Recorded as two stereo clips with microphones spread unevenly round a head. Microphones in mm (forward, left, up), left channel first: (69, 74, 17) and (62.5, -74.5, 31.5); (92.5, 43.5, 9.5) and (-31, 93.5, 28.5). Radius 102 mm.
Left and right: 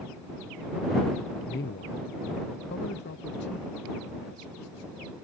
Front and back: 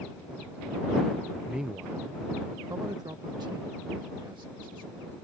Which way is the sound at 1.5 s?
75° left.